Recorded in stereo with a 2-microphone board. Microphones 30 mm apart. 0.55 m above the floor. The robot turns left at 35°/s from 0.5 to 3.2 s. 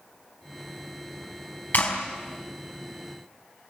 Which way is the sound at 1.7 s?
75° left (ahead or behind).